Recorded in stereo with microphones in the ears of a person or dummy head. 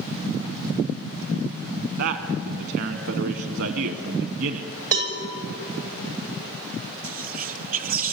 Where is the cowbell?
40° right (ahead or behind), 2.5 m.